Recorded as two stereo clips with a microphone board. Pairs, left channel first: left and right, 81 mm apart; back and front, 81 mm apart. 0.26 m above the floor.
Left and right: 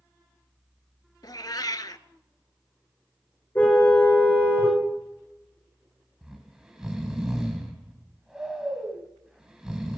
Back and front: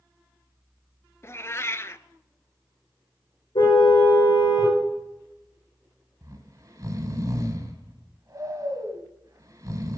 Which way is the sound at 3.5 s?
160° left.